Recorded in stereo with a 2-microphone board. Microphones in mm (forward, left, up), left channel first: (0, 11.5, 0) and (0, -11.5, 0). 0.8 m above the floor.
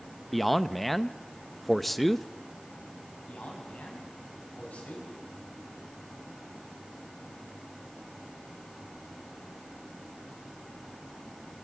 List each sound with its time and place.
0.3 s a man speaking: 5° left (ahead or behind), 0.5 m
3.3 s a man speaking: 85° left, 6 m